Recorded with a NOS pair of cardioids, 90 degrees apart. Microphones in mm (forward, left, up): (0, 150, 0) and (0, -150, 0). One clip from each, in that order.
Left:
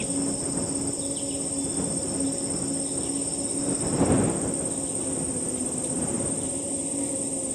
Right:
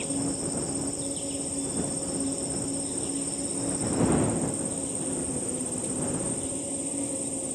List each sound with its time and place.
0.0 s an insect: 10° left